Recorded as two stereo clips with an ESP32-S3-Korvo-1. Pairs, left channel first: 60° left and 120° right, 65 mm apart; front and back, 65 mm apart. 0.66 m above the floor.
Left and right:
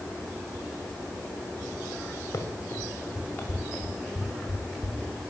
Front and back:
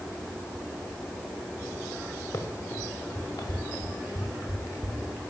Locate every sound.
2.3 s running footsteps: 20° left, 4.5 m; by 5.2 s 35° right, 5.5 m